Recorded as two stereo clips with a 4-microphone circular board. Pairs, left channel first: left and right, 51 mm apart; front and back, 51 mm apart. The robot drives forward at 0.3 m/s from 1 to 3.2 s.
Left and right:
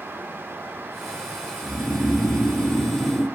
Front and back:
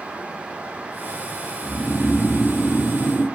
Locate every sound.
1.6 s snoring: 80° left, 0.5 m; by 3.2 s 130° left, 0.6 m